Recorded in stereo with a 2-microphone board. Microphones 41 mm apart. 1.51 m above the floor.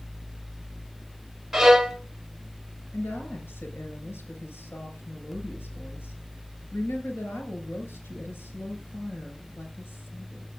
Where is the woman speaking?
85° left, 7 m.